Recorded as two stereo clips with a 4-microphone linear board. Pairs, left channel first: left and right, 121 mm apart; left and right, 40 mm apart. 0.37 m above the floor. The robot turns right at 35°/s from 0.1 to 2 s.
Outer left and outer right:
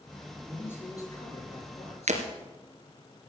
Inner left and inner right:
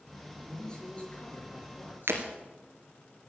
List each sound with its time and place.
0.5 s a man speaking: 10° left, 6 m; by 2.3 s 65° left, 6 m
2.1 s breaking glass: 75° right (ahead or behind), 2.5 m